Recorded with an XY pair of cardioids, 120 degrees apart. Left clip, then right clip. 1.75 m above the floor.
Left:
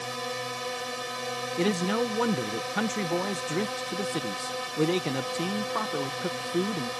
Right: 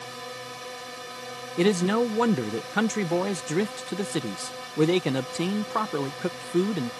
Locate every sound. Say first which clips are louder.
0.0 s a drone: left 5 dB; 30° left
1.6 s a man speaking: right 5 dB; 25° right